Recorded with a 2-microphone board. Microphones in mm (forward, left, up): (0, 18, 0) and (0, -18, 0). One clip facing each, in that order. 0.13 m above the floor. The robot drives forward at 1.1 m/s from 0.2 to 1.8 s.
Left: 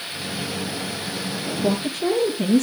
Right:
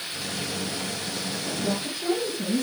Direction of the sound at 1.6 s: 65° left (ahead or behind).